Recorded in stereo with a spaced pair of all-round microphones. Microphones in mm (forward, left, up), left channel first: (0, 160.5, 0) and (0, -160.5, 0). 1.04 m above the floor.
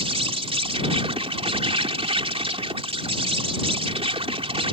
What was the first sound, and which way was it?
An insect, 20° right (ahead or behind).